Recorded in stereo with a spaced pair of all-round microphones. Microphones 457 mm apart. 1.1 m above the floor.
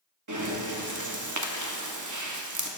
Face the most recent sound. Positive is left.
turn(degrees=-40)  # may be behind; listen again after turning